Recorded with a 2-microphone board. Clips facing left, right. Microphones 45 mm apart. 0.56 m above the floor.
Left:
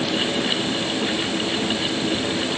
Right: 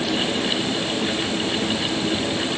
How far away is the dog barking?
No dog barking in this recording.